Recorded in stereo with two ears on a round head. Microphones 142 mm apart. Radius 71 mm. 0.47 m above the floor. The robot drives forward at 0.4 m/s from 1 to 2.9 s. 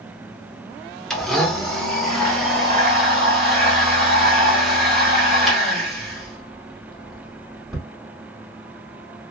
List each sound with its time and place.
1.1 s a blender: 5° left (ahead or behind), 0.6 m; by 7.9 s centre (ahead or behind), 1.2 m